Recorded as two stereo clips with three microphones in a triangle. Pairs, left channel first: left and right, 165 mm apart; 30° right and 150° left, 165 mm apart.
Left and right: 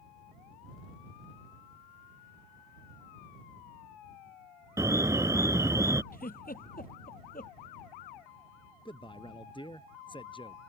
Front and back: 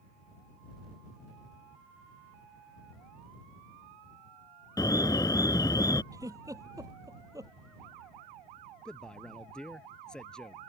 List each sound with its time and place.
4.8 s an alarm: 50° right
6.1 s a giggle: 85° left
8.8 s a man speaking: 50° left